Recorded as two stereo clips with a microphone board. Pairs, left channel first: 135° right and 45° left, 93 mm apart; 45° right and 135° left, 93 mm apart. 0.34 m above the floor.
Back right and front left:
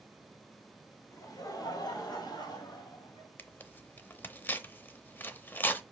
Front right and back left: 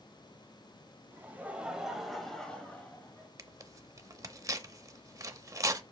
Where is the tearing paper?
165° left, 0.6 m.